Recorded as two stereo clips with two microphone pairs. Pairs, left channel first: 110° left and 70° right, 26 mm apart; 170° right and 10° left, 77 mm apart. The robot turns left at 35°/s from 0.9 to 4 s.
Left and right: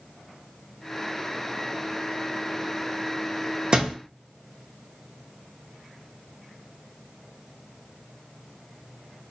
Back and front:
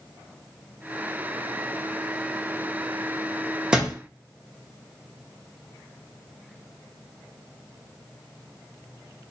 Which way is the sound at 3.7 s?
60° right.